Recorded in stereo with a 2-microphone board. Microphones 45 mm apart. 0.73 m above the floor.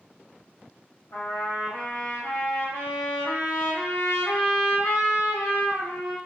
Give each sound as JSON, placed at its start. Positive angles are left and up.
{"t": 1.1, "sound": "a trumpet", "side_deg": 75, "distance_m": 1.1}